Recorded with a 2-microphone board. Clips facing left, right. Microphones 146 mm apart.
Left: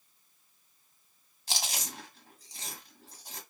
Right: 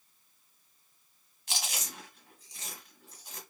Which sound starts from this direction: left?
Chewing, at 1.5 s.